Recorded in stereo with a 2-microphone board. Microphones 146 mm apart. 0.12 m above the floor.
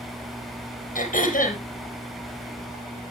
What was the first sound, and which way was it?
Throat clearing, 65° left (ahead or behind).